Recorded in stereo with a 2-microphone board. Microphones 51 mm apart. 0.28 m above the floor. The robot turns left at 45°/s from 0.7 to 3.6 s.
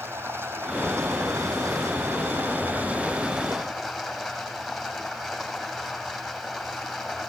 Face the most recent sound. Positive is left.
turn(degrees=-175)